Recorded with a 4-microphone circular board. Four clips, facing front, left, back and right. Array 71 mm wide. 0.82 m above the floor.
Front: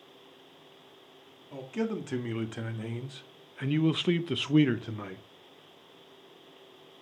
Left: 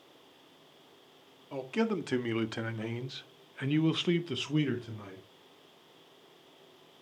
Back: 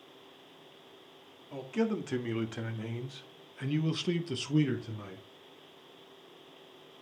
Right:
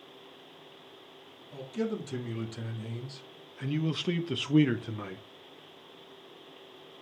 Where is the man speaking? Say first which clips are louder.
Left 2 dB, back 1 dB; 90° left, 1.8 m; by 5.2 s 45° right, 1.0 m.